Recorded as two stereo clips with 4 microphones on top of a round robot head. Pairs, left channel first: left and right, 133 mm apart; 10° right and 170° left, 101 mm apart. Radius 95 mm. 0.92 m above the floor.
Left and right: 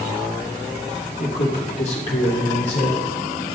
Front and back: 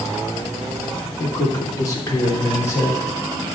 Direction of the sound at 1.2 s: 45° left.